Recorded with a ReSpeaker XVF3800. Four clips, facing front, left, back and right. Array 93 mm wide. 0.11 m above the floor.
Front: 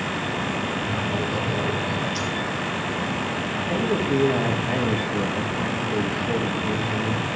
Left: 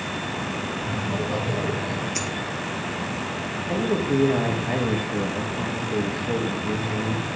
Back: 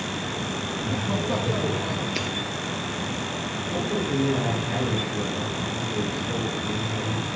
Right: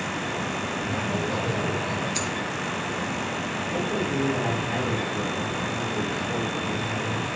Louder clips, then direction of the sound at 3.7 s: Left 5 dB, front 4 dB; 45° left.